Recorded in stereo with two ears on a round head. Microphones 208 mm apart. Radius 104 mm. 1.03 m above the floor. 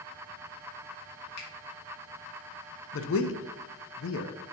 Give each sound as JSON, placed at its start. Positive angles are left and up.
{"t": 1.4, "sound": "a finger snap", "side_deg": 80, "distance_m": 1.9}
{"t": 2.9, "sound": "a man speaking", "side_deg": 60, "distance_m": 0.6}